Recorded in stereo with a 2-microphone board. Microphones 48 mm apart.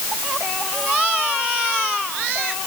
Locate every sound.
Only background noise.